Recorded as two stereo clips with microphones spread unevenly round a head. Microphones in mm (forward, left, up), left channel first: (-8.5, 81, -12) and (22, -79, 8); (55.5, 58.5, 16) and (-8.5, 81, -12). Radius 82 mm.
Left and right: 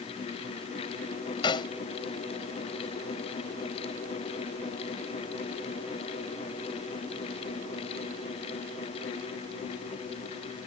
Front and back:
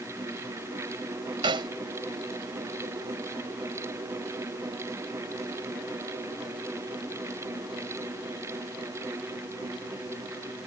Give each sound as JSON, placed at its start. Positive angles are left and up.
{"t": 1.4, "sound": "a snare drum", "azimuth_deg": 165}